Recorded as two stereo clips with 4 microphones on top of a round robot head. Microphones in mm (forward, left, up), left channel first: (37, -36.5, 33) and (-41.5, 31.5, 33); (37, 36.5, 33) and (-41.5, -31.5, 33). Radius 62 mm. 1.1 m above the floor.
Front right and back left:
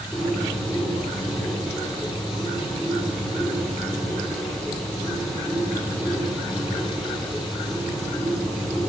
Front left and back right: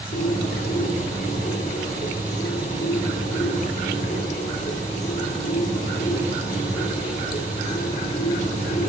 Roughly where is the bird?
Ahead left.